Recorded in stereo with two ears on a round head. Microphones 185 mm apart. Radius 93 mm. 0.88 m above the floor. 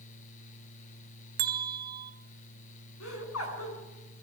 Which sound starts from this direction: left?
Laughter, at 3.0 s.